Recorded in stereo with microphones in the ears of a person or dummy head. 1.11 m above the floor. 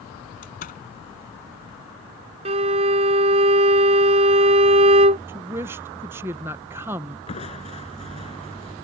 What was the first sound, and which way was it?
A door slam, 40° left (ahead or behind).